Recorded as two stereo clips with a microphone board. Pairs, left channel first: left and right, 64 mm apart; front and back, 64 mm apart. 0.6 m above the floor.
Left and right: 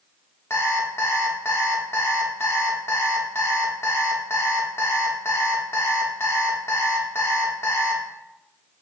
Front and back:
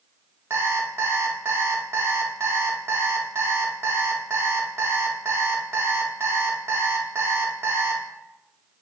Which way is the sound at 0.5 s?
135° left.